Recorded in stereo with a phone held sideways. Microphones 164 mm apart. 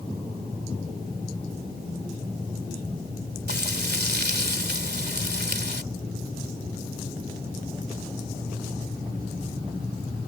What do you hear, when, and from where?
3.5 s frying: 85° right